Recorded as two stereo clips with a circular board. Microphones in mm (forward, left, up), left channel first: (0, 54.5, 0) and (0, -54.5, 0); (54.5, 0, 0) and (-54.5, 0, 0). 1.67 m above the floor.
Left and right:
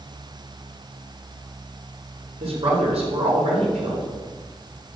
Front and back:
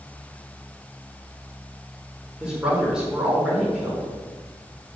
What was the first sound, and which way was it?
A woman speaking, 100° right.